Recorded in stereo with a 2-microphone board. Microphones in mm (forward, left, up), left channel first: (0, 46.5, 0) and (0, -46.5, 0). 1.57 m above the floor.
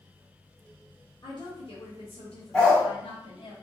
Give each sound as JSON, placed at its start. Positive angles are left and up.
{"t": 1.2, "sound": "a woman speaking", "side_deg": 50, "distance_m": 0.9}
{"t": 2.5, "sound": "a dog barking", "side_deg": 10, "distance_m": 1.3}